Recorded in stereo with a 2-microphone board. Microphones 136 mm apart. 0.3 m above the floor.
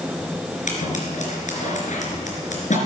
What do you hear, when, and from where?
0.7 s scissors: 65° left (ahead or behind), 3.5 m